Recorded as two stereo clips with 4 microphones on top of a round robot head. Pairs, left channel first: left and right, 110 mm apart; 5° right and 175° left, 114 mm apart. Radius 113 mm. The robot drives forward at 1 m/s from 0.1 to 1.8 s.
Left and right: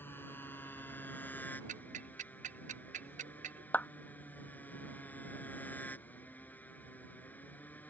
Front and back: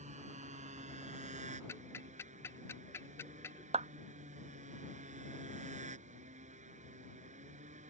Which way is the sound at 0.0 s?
160° left.